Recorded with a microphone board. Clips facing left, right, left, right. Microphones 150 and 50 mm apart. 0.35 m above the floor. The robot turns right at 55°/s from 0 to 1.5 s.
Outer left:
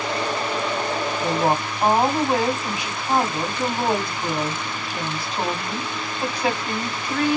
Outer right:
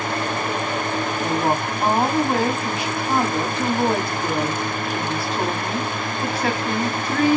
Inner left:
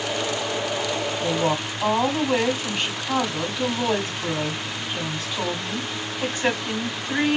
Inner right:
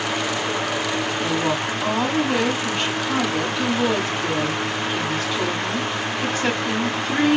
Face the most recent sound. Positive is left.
turn(degrees=15)  # may be behind; listen again after turning